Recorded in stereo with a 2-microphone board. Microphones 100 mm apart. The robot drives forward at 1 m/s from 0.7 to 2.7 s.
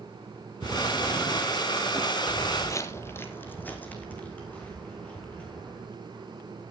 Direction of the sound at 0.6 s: 25° right (ahead or behind).